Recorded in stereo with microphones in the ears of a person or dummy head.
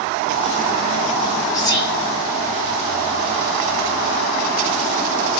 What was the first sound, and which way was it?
Whispering, 20° left (ahead or behind).